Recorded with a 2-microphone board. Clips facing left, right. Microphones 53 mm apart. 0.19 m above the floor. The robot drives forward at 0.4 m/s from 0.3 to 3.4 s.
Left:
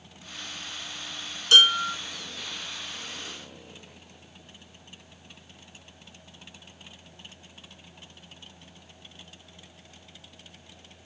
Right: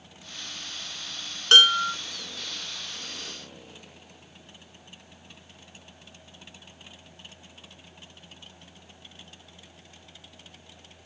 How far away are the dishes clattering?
About 1.5 m.